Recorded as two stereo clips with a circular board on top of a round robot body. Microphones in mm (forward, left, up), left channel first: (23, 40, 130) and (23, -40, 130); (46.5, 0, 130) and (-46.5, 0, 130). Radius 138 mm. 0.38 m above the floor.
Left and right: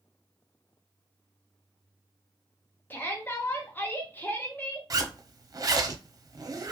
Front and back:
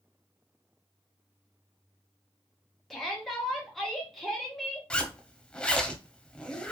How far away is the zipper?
About 0.8 m.